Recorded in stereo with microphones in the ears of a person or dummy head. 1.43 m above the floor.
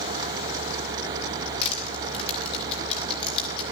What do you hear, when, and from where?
1.6 s crushing: 30° left (ahead or behind), 3.5 m